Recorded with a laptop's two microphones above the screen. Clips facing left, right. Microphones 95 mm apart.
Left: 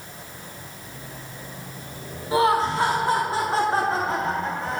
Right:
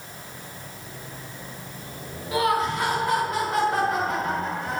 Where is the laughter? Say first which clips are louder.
Left 3 dB; 30° left (ahead or behind), 2 m.